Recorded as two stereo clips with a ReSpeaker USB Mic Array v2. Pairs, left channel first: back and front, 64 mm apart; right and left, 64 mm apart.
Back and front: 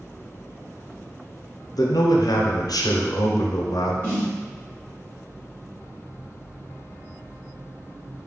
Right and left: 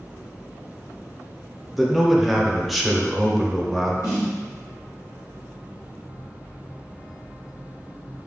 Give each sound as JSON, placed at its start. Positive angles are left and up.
{"t": 1.8, "sound": "a man speaking", "azimuth_deg": 175, "distance_m": 0.6}
{"t": 4.0, "sound": "a snare drum", "azimuth_deg": -50, "distance_m": 1.6}